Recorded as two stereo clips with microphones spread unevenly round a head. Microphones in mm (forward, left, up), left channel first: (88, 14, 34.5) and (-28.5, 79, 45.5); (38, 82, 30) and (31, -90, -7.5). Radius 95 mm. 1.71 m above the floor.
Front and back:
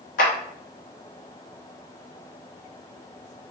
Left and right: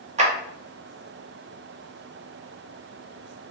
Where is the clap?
40° right, 1.2 m.